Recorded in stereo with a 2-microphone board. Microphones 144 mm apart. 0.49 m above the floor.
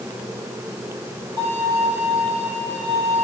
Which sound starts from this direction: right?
A violin, at 1.4 s.